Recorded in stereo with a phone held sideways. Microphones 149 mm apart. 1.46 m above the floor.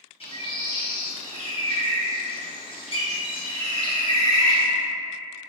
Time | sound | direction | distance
0.2 | a bird | 40° left (ahead or behind) | 0.8 m